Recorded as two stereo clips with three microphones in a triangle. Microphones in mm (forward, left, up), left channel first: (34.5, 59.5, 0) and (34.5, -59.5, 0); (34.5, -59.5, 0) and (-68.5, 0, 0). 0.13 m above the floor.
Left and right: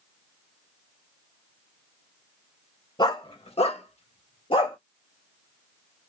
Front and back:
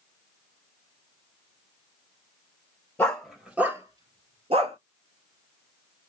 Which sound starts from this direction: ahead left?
A dog barking, at 3.0 s.